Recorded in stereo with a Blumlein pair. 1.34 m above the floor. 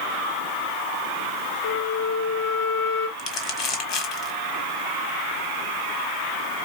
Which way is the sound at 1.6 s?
50° left.